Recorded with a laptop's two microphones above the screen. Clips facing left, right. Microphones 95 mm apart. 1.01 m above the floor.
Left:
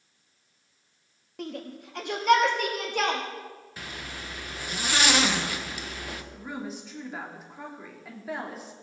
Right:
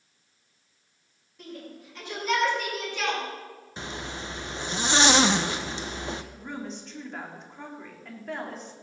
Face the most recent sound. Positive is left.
turn(degrees=5)  # may be behind; listen again after turning